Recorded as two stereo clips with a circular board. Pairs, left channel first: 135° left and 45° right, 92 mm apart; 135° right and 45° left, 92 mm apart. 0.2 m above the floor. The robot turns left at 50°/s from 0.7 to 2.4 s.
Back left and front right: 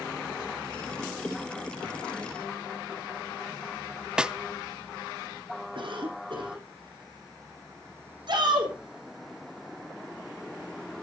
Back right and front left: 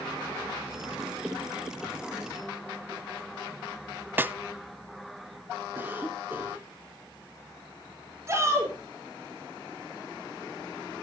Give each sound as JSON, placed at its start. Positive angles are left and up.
{"t": 4.2, "sound": "a snare drum", "azimuth_deg": 20, "distance_m": 0.5}
{"t": 5.8, "sound": "a cough", "azimuth_deg": -20, "distance_m": 6.5}
{"t": 8.3, "sound": "a shout", "azimuth_deg": -15, "distance_m": 8.0}